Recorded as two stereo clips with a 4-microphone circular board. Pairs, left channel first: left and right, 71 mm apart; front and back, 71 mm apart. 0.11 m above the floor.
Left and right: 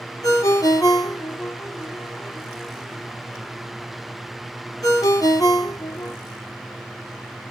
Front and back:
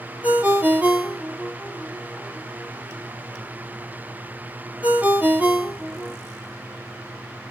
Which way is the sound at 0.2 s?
110° left.